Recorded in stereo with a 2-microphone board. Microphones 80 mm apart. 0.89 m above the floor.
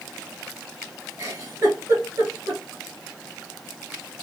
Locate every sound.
1.2 s a giggle: 45° right (ahead or behind), 2 m